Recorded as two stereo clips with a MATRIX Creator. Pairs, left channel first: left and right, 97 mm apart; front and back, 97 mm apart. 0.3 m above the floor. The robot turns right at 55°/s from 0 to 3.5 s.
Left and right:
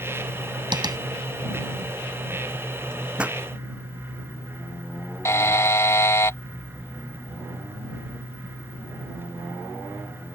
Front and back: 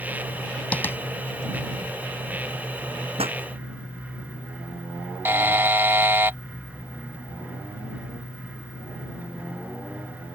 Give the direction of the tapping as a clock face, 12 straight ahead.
2 o'clock.